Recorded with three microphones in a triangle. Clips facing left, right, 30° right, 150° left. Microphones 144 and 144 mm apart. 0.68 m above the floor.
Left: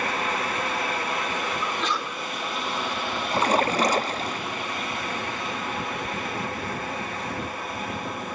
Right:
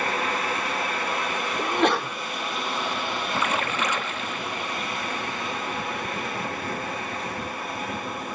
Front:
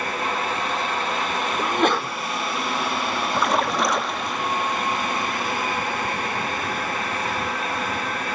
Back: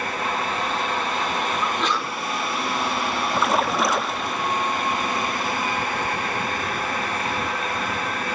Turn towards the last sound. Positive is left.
turn(degrees=65)